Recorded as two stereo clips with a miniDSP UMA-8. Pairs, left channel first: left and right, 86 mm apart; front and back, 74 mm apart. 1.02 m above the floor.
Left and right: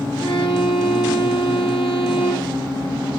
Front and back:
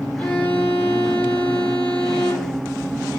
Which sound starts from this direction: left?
A violin, at 0.2 s.